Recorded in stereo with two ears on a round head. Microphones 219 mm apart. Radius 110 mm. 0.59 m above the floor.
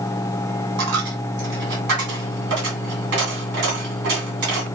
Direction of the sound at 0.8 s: 50° right (ahead or behind).